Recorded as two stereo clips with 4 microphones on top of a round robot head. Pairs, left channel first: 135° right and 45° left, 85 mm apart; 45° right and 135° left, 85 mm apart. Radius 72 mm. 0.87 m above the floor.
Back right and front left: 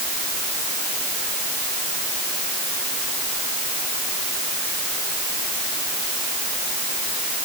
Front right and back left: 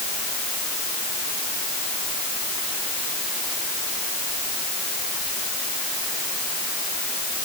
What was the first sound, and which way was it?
Only background noise.